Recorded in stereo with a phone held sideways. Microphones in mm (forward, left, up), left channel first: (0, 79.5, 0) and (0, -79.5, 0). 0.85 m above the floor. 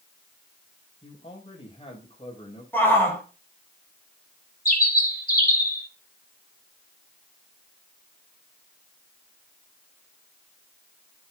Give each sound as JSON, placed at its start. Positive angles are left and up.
{"t": 1.0, "sound": "a man speaking", "side_deg": 35, "distance_m": 4.5}
{"t": 2.7, "sound": "a shout", "side_deg": 10, "distance_m": 5.5}
{"t": 4.7, "sound": "a bird", "side_deg": 60, "distance_m": 3.0}